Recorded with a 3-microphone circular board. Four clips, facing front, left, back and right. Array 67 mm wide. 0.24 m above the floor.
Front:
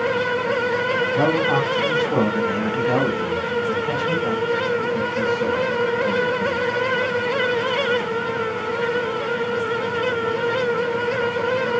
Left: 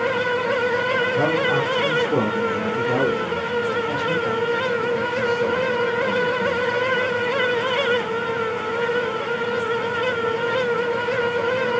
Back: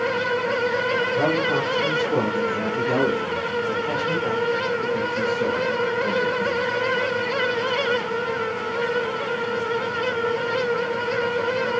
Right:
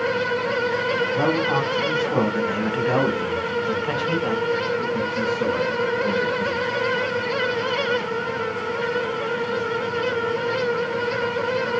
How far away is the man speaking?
About 2.0 m.